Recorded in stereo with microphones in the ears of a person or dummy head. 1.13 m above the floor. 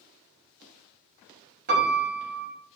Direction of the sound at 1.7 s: 50° right (ahead or behind).